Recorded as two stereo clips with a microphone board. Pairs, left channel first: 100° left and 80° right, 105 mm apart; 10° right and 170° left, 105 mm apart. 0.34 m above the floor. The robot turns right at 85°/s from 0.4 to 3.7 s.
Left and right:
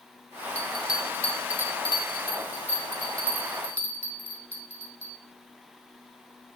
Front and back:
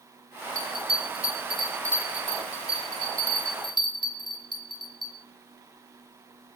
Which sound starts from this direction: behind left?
A bell, at 0.6 s.